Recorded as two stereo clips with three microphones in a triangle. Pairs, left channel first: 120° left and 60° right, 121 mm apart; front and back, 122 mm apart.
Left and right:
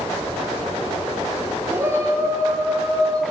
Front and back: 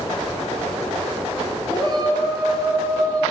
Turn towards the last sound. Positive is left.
turn(degrees=-120)